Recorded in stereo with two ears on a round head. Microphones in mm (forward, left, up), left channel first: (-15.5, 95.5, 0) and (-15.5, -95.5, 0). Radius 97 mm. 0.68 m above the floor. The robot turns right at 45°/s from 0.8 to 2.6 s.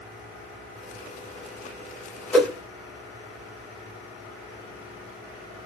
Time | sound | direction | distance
2.3 | a whoosh | 5° left (ahead or behind) | 1.0 m